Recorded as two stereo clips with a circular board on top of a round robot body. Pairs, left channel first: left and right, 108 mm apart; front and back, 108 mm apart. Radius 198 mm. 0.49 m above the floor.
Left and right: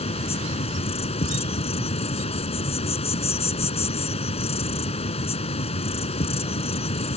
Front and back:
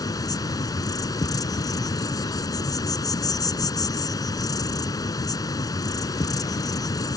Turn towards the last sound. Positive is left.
turn(degrees=60)